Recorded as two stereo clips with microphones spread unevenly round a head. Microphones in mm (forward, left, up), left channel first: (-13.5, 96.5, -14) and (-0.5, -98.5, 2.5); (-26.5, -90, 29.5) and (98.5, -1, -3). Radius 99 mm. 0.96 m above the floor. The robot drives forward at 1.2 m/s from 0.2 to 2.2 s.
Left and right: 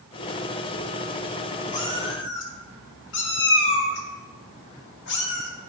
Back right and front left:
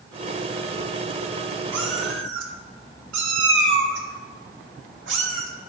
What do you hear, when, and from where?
1.7 s a cat meowing: 35° left, 1.4 m; by 5.5 s 60° left, 1.0 m